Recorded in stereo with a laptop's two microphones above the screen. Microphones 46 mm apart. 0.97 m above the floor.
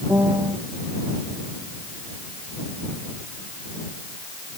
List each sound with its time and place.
0.1 s a piano: 85° right